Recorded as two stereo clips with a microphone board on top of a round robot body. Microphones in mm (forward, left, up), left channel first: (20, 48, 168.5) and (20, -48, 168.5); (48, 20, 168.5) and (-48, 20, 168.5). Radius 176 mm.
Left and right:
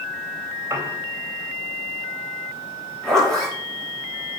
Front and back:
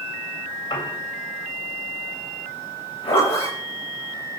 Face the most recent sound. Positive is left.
turn(degrees=5)